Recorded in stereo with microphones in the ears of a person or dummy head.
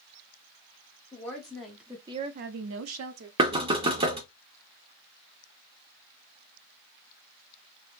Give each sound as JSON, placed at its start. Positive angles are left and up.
{"t": 1.1, "sound": "a woman speaking", "side_deg": 15, "distance_m": 1.2}
{"t": 3.4, "sound": "knocking", "side_deg": -25, "distance_m": 0.7}